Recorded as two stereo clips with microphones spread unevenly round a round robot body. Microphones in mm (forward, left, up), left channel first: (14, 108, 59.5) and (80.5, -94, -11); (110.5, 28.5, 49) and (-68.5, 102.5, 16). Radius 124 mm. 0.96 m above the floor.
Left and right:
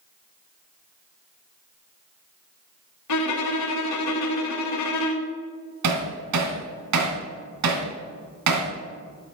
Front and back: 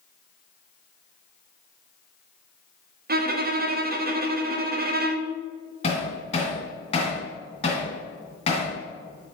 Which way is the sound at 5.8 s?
85° right.